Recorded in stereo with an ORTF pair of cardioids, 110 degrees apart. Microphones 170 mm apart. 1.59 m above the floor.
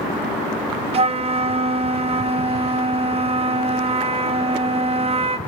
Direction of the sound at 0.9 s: 35° right.